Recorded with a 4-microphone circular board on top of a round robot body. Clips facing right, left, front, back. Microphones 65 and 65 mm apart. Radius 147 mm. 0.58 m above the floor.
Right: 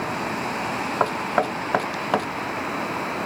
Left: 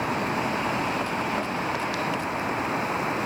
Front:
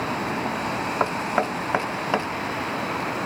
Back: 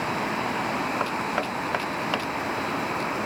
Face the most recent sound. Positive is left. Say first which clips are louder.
# right 5 dB, front 3 dB
turn(degrees=-65)